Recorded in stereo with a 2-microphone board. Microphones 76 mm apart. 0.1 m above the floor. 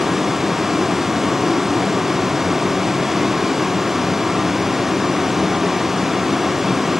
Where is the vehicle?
5° right (ahead or behind).